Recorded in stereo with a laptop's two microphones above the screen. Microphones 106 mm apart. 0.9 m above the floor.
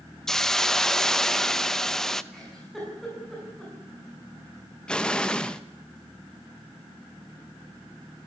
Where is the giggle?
Centre (ahead or behind), 8 m.